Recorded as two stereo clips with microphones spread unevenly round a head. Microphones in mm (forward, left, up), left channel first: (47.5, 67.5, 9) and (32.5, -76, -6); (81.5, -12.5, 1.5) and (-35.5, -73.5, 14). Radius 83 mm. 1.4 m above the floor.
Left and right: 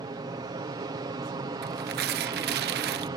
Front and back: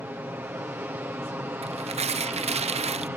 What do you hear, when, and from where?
0.0 s an aircraft: 90° right
1.6 s tearing paper: 110° right